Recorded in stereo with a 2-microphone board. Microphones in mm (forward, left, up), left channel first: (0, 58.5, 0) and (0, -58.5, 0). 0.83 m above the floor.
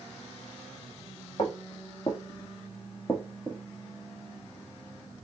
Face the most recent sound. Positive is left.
turn(degrees=0)  # may be behind; listen again after turning